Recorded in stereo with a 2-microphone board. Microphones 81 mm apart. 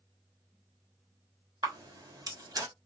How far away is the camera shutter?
About 1.7 m.